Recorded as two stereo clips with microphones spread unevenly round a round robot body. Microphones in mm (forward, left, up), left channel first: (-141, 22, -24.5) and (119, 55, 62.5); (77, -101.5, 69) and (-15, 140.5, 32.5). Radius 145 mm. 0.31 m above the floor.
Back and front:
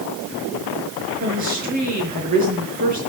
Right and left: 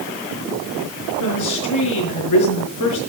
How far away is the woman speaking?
About 5.5 m.